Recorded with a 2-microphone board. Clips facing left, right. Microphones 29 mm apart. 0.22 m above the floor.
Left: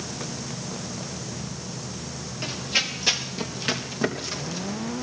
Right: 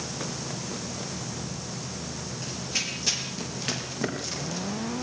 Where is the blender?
No blender in this recording.